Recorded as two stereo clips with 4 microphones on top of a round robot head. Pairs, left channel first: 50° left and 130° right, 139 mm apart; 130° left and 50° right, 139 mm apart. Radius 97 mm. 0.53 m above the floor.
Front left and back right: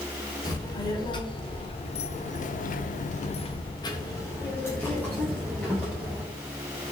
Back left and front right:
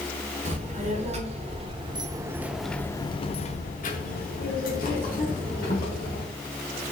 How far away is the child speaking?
About 1.4 m.